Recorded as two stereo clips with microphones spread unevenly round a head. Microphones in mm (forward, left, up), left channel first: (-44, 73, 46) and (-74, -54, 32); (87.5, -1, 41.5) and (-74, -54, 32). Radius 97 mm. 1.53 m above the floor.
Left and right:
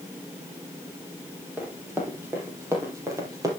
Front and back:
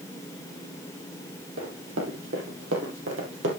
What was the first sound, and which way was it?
Running footsteps, straight behind.